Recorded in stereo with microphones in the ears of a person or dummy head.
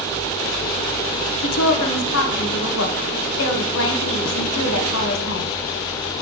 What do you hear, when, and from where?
1.4 s a woman speaking: 65° left (ahead or behind), 1.0 m